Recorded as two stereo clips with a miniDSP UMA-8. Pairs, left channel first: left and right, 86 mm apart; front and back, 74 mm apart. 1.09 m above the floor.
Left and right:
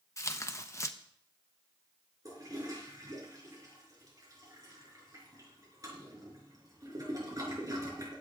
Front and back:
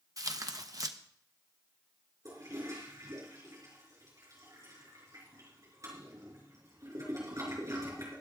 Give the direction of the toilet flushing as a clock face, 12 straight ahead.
5 o'clock.